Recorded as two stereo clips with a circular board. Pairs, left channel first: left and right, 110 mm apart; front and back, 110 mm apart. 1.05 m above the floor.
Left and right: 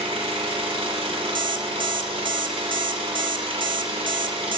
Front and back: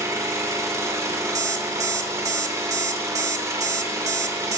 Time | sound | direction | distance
0.0 | an engine running | 120° right | 2 m
1.4 | an alarm clock | 125° right | 1.0 m